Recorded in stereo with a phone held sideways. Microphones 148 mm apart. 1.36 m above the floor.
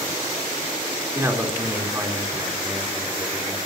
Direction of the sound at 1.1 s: 20° right (ahead or behind).